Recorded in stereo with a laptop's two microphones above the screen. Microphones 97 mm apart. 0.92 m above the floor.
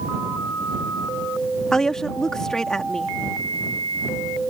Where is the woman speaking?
5° left (ahead or behind).